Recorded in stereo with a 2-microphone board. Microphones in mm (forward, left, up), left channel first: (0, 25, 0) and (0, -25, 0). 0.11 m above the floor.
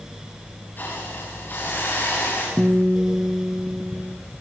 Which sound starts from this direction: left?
A hiss, at 0.8 s.